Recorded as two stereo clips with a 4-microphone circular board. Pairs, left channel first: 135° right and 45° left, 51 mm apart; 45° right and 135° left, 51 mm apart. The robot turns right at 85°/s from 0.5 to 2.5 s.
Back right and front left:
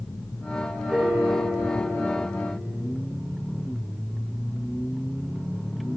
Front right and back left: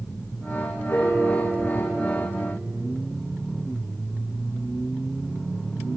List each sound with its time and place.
0.9 s a piano: 20° right, 4 m; by 2.8 s 115° left, 4 m